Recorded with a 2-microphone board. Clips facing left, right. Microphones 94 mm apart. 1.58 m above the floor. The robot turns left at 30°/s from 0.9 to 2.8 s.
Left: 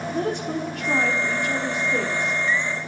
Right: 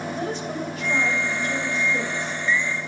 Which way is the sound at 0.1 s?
115° left.